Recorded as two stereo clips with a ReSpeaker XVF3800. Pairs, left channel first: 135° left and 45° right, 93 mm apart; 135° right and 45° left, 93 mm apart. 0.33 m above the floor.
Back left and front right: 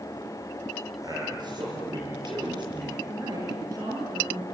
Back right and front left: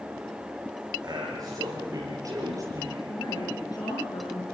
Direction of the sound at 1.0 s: Straight ahead.